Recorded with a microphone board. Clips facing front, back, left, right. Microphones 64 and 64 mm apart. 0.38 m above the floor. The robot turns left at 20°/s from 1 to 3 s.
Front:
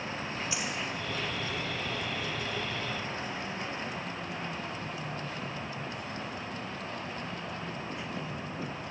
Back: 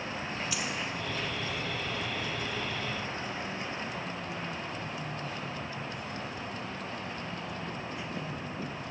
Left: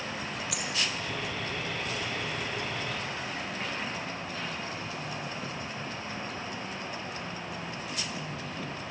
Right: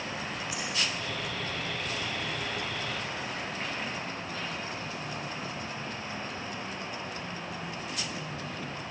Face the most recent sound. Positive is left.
turn(degrees=25)